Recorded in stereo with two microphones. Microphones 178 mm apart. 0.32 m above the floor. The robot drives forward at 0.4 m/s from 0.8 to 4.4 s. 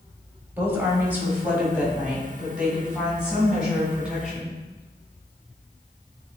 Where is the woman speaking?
10° right (ahead or behind), 1.2 m; by 4.6 s 5° right (ahead or behind), 2.5 m.